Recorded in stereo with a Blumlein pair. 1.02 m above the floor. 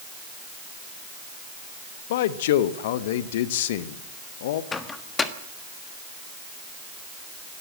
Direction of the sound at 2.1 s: 55° left.